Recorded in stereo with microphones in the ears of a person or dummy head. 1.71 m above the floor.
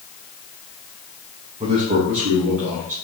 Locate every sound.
1.6 s a man speaking: 30° right (ahead or behind), 0.6 m; by 2.9 s 70° right (ahead or behind), 1.4 m